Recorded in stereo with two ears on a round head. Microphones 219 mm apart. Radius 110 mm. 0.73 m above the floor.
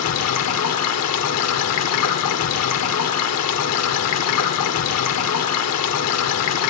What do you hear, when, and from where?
0.0 s running water: 75° left (ahead or behind), 1.0 m